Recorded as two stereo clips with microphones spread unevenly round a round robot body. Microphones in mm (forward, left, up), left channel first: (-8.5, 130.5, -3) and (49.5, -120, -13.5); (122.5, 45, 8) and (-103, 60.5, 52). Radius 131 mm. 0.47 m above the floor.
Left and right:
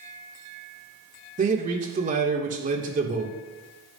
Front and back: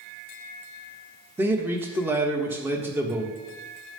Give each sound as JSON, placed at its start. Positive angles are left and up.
{"t": 1.4, "sound": "a man speaking", "azimuth_deg": -90, "distance_m": 1.2}